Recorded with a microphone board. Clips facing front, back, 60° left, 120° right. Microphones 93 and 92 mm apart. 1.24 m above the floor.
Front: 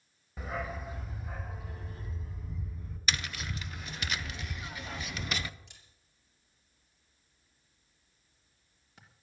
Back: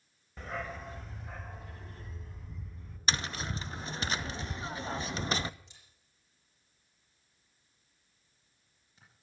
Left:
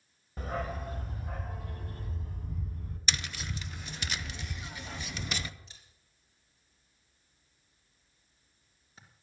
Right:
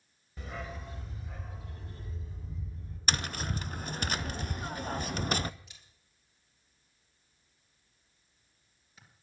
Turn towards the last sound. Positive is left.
turn(degrees=5)